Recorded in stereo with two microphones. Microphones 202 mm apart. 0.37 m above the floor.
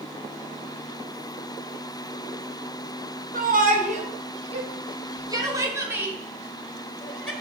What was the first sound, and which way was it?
A shout, 45° right (ahead or behind).